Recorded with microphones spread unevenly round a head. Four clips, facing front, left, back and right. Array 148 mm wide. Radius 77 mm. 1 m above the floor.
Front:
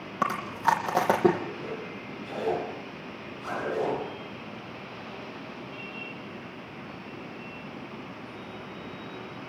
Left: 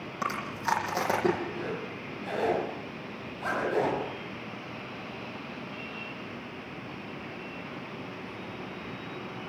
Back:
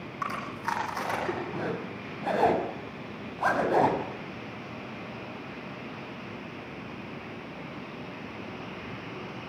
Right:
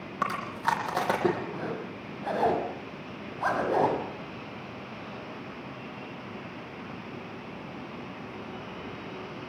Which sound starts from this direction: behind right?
A zipper, at 1.5 s.